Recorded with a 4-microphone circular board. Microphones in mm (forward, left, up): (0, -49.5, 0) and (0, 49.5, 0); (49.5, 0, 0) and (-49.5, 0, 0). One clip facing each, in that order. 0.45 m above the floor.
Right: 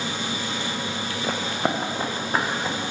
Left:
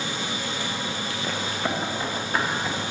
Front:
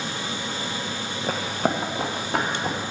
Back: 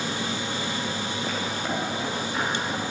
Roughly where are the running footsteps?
Ahead right.